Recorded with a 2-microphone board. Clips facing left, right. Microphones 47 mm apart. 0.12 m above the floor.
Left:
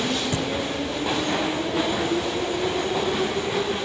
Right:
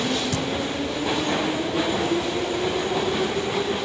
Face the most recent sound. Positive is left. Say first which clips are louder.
# even
turn(degrees=25)  # may be behind; listen again after turning